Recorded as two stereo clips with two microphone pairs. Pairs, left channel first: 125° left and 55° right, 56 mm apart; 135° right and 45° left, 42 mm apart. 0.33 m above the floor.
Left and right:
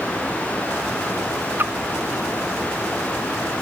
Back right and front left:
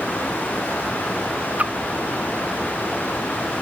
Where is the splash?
5° right.